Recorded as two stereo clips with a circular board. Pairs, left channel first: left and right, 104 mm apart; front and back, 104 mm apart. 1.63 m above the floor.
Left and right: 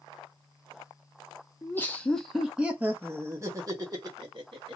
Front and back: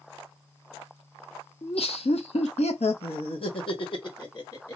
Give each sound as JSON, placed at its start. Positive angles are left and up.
{"t": 1.6, "sound": "laughter", "azimuth_deg": 25, "distance_m": 0.9}